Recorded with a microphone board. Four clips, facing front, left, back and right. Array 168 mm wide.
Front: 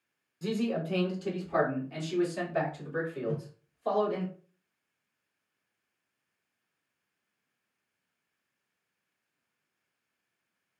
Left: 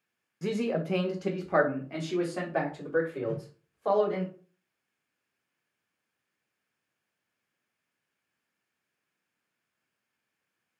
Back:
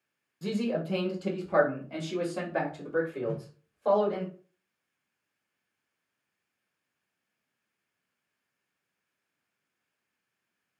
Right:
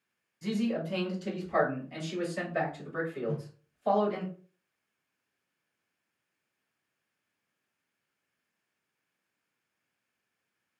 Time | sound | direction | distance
0.4 | a man speaking | 90° left | 0.7 m
3.2 | a whoosh | 145° left | 1.5 m